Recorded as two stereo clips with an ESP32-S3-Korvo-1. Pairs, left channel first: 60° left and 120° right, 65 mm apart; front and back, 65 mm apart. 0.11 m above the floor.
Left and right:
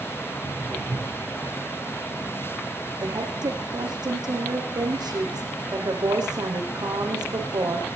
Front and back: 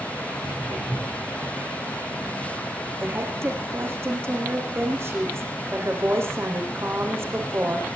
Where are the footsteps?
175° right, 8 m.